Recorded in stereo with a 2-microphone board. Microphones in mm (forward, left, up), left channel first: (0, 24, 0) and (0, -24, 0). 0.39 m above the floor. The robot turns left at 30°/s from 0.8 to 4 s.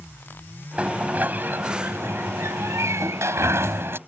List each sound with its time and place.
0.8 s a sliding door: 25° right (ahead or behind); by 4.0 s 50° right (ahead or behind)